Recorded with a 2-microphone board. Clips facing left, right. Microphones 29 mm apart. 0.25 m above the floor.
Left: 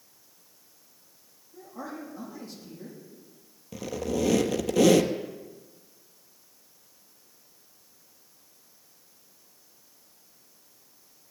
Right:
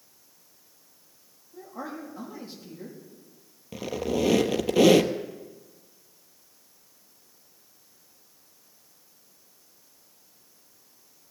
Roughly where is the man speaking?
Right.